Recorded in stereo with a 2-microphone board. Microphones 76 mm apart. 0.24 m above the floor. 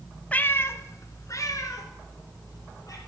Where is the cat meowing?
20° left (ahead or behind), 0.5 m; by 3.0 s 50° left (ahead or behind), 3 m.